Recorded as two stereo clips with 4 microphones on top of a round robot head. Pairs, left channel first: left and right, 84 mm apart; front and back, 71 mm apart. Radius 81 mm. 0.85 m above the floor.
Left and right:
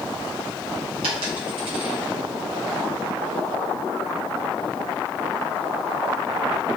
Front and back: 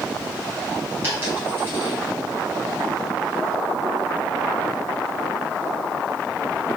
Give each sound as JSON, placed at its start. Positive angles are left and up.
{"t": 1.0, "sound": "a dropped coin", "azimuth_deg": -115, "distance_m": 3.0}